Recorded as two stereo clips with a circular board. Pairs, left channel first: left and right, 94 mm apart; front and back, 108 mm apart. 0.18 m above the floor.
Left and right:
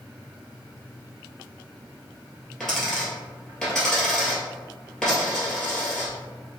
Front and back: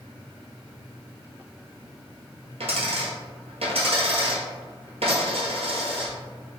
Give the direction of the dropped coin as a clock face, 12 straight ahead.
6 o'clock.